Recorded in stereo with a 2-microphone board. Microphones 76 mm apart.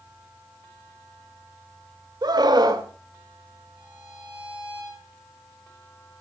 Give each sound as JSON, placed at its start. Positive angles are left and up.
{"t": 2.2, "sound": "a scream", "side_deg": -60, "distance_m": 1.6}
{"t": 3.8, "sound": "a violin", "side_deg": -15, "distance_m": 5.0}